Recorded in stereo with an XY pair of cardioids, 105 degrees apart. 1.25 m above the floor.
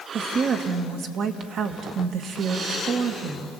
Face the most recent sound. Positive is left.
turn(degrees=-70)